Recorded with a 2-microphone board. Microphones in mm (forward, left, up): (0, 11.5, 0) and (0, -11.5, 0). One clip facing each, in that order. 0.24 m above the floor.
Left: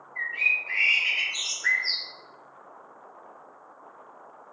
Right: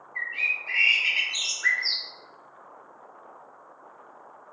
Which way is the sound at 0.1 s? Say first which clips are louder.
Left 2 dB; 45° right (ahead or behind).